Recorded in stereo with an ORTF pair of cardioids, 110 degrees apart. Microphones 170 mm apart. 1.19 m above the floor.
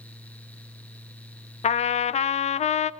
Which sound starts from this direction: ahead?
A fan, at 0.0 s.